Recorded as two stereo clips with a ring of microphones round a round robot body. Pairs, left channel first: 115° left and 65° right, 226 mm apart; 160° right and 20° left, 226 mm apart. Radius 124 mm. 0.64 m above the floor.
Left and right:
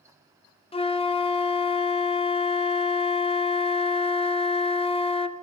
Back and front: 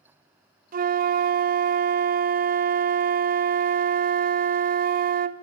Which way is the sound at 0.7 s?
55° left.